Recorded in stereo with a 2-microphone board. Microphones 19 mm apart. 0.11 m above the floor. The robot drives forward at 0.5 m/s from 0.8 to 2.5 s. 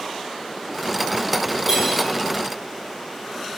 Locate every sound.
1.7 s cutlery clinking: 25° right (ahead or behind), 1.9 m